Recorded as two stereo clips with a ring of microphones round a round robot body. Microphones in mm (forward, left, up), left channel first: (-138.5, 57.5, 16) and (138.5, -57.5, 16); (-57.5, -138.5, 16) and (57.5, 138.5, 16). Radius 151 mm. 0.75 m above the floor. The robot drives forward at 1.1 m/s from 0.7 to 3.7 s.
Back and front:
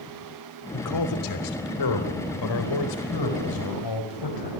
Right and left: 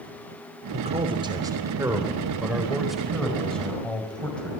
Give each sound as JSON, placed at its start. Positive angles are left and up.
{"t": 0.7, "sound": "a man speaking", "azimuth_deg": 135, "distance_m": 2.5}